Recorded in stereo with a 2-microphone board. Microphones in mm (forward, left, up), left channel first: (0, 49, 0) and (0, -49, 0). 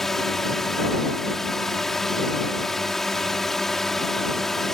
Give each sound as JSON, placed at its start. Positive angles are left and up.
{"t": 0.0, "sound": "a drone", "side_deg": 0}